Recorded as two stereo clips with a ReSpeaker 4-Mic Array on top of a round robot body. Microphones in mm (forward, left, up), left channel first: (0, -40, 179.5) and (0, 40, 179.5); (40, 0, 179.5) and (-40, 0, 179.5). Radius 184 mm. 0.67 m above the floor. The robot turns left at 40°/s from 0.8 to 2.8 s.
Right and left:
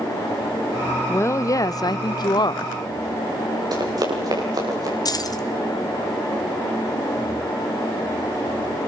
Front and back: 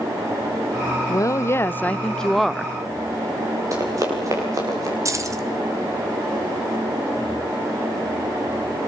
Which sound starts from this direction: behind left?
Running footsteps, at 3.7 s.